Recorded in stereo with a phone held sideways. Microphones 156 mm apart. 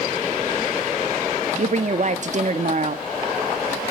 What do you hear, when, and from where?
1.6 s a woman speaking: 50° right (ahead or behind), 1.4 m